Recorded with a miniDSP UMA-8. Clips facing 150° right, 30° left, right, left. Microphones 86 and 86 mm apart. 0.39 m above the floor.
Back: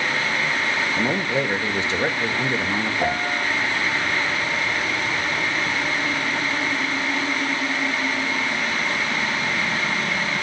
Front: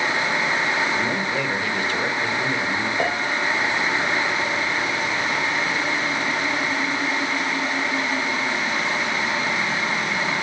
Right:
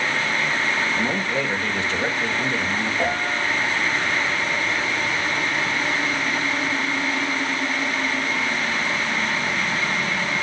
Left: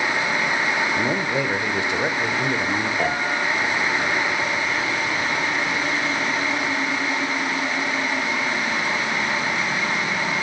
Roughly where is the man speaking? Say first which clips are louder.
Back 1 dB, left 1 dB; behind.